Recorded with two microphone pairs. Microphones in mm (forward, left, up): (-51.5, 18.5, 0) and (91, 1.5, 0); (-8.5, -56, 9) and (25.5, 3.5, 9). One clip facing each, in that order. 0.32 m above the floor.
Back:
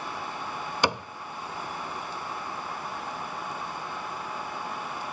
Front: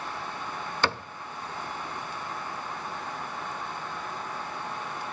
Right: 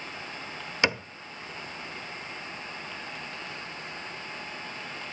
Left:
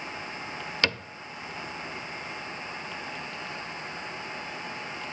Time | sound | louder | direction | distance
0.8 | a cupboard door | back 2 dB, right 3 dB | 140° right | 0.5 m